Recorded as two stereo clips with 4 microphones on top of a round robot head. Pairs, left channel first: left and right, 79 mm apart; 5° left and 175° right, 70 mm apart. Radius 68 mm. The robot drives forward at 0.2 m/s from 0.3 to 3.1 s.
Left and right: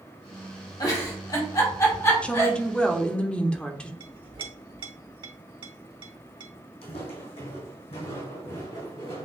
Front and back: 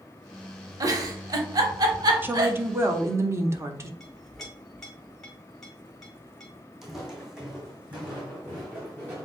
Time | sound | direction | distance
0.8 | a giggle | 145° left | 0.8 m
2.2 | a woman speaking | 155° left | 0.7 m
4.0 | a clink | 80° right | 1.1 m
6.8 | footsteps | 100° left | 1.5 m